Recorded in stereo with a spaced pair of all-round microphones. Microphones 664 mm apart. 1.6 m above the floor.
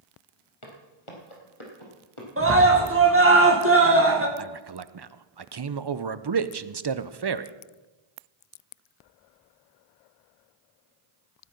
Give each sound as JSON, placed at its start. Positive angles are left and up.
{"t": 0.6, "sound": "footsteps", "side_deg": 45, "distance_m": 3.0}
{"t": 2.4, "sound": "a scream", "side_deg": -20, "distance_m": 1.7}
{"t": 4.4, "sound": "a man speaking", "side_deg": -40, "distance_m": 0.6}